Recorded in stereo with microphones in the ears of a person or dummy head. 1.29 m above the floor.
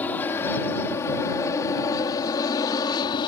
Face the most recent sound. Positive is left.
turn(degrees=25)  # may be behind; listen again after turning